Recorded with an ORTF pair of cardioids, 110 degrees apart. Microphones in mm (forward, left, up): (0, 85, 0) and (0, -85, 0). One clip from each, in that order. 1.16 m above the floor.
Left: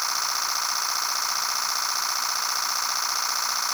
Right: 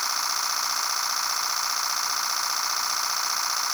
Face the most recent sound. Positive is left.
No sound to turn to.